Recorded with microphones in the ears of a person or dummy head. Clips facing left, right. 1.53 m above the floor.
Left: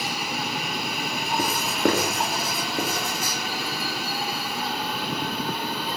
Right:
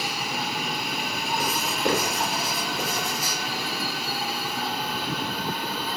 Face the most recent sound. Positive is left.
turn(degrees=45)  # may be behind; listen again after turning